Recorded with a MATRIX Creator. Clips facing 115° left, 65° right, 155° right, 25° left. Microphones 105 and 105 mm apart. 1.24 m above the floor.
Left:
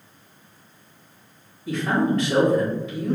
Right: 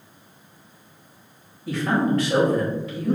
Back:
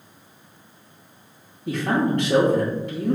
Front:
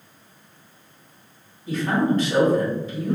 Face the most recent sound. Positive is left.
turn(degrees=-160)